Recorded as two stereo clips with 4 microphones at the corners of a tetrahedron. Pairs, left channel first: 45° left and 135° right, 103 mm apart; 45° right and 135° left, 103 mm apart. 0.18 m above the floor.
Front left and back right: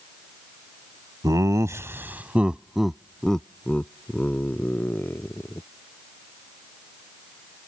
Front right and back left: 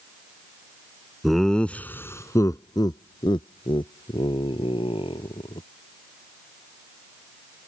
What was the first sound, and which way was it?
Laughter, 135° right.